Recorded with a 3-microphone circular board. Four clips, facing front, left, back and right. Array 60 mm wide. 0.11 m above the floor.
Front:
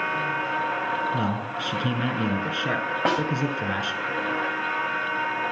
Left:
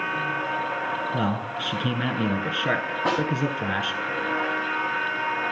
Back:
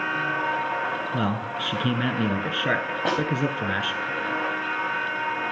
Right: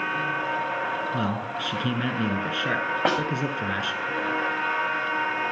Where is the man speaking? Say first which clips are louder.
Left 1 dB, even; 160° left, 1.1 m.